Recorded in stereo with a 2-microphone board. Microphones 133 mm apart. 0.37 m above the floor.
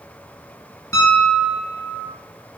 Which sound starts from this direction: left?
A piano, at 0.9 s.